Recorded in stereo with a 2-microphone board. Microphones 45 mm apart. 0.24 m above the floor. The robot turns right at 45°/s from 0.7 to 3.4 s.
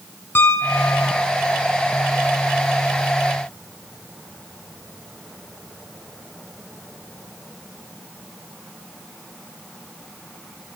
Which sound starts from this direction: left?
A piano, at 0.3 s.